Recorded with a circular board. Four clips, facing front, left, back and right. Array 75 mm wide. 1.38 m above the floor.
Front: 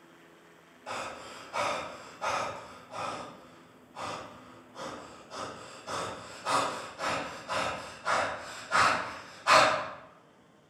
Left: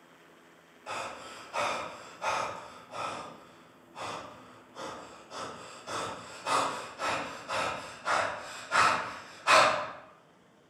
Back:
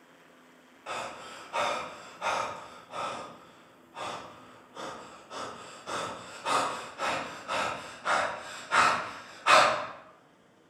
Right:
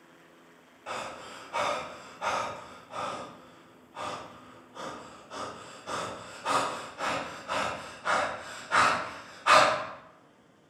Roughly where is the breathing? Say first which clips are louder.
Right 1 dB, back 1 dB; behind right.